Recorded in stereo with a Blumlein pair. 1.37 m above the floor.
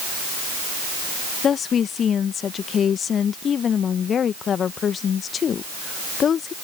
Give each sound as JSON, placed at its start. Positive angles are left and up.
{"t": 1.4, "sound": "a woman speaking", "azimuth_deg": 25}